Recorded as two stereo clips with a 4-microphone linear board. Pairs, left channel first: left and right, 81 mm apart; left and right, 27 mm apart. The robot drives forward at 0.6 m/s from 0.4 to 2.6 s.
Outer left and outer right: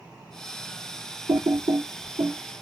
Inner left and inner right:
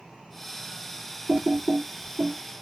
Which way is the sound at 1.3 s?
65° right (ahead or behind).